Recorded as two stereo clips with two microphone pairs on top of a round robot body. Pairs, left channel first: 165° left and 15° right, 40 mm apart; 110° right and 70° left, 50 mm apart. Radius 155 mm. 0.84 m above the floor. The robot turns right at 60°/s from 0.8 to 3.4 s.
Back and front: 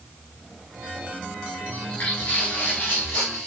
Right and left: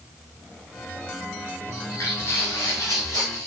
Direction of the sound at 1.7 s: 145° right.